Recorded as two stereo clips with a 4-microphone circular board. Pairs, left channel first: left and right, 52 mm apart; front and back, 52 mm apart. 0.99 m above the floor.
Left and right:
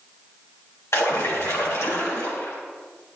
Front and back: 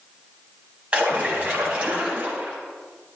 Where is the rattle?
No rattle in this recording.